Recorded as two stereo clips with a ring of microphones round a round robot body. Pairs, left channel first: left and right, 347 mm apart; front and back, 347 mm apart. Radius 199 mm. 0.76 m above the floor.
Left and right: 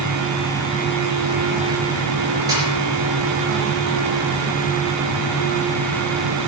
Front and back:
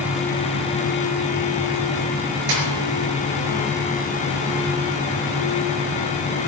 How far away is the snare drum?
About 5 m.